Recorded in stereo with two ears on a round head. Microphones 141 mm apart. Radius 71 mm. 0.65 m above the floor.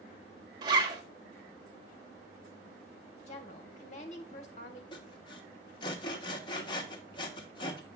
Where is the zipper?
25° right (ahead or behind), 1.2 m.